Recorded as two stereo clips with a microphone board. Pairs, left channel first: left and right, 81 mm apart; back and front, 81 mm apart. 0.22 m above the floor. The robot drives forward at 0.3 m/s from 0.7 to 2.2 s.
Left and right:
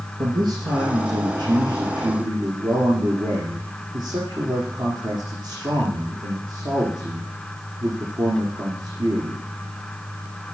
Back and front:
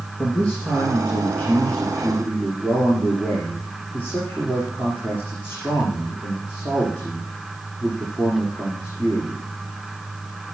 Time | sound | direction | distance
0.2 | a man speaking | 105° right | 4 m